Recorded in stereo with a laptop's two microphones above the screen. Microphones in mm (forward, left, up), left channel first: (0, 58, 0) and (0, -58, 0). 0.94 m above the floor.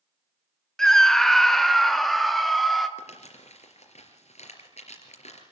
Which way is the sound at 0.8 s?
5° left (ahead or behind).